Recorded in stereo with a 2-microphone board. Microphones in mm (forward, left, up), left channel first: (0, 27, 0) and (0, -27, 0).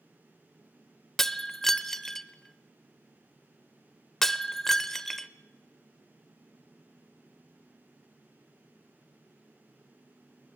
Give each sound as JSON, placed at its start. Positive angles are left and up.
{"t": 1.2, "sound": "breaking glass", "side_deg": 5, "distance_m": 0.7}